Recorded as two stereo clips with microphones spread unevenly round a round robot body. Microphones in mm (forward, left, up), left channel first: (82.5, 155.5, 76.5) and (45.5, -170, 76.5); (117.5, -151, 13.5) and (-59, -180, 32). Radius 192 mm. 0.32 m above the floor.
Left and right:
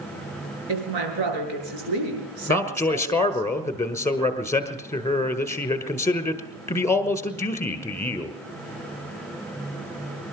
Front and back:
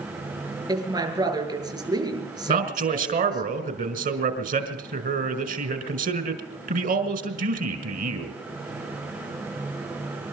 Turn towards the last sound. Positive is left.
turn(degrees=160)